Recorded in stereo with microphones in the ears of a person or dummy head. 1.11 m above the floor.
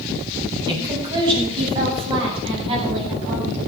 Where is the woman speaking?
25° right (ahead or behind), 8.5 m; by 3.6 s 35° right (ahead or behind), 8.5 m.